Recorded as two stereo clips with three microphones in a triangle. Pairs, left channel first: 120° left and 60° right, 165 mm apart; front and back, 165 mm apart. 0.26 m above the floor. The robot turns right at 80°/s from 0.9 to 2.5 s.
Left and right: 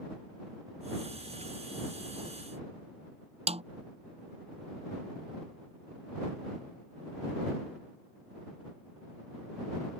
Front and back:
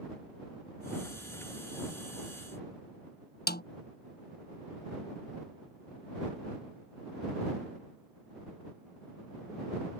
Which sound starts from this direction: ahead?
A snare drum, at 3.5 s.